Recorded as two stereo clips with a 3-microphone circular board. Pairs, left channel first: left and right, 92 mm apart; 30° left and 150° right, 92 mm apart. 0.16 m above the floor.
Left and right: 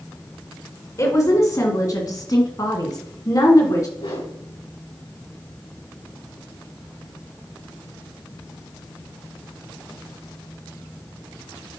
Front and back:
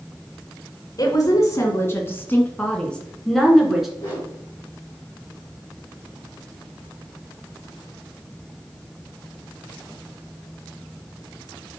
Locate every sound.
1.0 s a woman speaking: 50° left, 2 m; by 3.9 s 125° left, 2 m
4.0 s a whoosh: 95° left, 5.5 m